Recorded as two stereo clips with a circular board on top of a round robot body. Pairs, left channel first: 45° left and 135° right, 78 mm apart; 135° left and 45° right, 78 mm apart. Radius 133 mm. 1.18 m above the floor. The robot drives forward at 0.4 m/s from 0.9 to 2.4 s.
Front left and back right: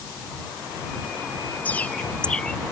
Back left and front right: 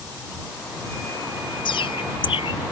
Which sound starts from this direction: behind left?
A bird, at 1.6 s.